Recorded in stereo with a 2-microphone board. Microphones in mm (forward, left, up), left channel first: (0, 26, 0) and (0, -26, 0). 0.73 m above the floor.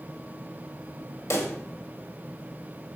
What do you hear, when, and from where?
1.3 s a pop: 70° left (ahead or behind), 1.2 m